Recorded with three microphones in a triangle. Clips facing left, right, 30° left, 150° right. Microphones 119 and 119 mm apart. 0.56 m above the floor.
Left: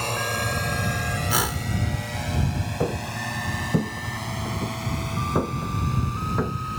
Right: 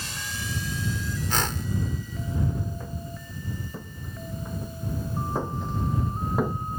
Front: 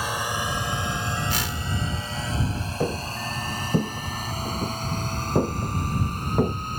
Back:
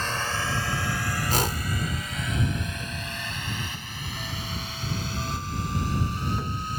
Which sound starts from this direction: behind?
A whoosh, at 1.3 s.